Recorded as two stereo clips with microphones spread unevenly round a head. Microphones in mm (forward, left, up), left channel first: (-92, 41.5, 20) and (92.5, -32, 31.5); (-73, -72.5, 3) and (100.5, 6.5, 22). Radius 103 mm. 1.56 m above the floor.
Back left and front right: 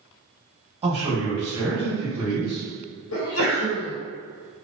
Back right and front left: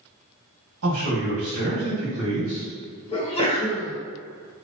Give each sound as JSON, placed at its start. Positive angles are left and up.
{"t": 0.8, "sound": "a man speaking", "azimuth_deg": 55, "distance_m": 1.4}
{"t": 3.1, "sound": "a sneeze", "azimuth_deg": 140, "distance_m": 1.1}